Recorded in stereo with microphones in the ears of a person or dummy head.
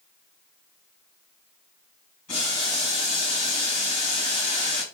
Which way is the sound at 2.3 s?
40° left (ahead or behind).